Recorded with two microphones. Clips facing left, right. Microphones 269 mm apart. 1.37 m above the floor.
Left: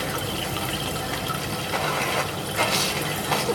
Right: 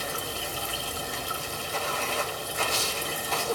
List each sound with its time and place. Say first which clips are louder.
0.0 s running water: left 6 dB; 85° left, 0.8 m